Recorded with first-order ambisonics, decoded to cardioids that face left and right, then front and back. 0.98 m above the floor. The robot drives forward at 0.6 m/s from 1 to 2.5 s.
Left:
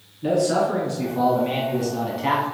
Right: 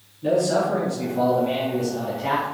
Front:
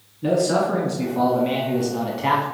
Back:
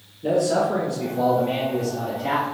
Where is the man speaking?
10° left, 2 m; by 2.5 s 20° left, 1.4 m.